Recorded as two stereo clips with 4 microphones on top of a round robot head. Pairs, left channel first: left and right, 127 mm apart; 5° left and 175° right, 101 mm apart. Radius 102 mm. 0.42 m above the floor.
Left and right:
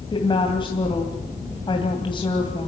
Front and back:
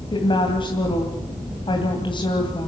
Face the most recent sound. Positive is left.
turn(degrees=40)